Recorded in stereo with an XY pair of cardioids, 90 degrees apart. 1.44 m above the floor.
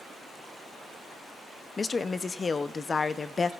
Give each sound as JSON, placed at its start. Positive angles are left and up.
{"t": 1.8, "sound": "a woman speaking", "azimuth_deg": 40, "distance_m": 0.6}